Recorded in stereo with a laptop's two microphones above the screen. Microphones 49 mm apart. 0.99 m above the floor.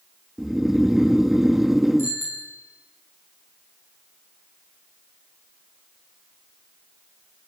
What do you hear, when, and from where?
0.4 s snoring: 5° right (ahead or behind), 0.6 m
2.0 s a bicycle bell: 50° left (ahead or behind), 7 m